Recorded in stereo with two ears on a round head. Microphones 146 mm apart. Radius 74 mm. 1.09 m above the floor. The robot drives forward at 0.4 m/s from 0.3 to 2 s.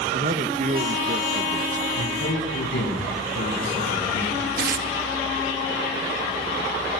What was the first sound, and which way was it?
A man speaking, 45° right (ahead or behind).